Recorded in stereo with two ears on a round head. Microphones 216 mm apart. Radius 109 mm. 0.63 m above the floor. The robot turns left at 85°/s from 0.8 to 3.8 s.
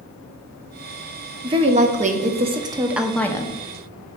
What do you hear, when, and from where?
1.4 s a woman speaking: 20° right (ahead or behind), 0.7 m; by 3.5 s 20° left (ahead or behind), 0.7 m